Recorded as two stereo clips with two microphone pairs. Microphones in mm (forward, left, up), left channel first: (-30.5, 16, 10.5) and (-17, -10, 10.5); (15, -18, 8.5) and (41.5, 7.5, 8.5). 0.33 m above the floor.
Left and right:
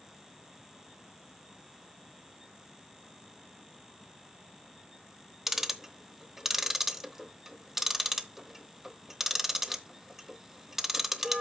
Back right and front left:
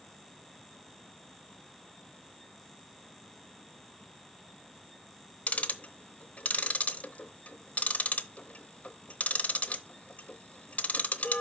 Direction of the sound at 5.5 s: 140° right.